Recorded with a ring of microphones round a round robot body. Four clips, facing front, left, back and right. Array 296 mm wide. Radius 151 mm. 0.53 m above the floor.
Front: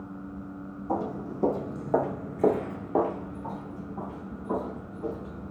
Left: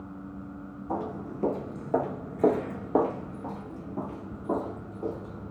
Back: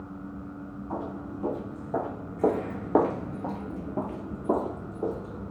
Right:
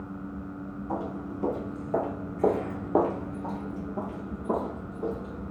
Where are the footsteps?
20° left, 1.0 m; by 5.5 s 165° right, 1.6 m.